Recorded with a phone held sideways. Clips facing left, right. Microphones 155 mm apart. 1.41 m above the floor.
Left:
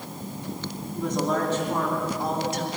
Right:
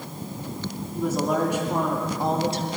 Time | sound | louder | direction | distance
0.9 | a woman speaking | right 2 dB | 5° right (ahead or behind) | 3.5 m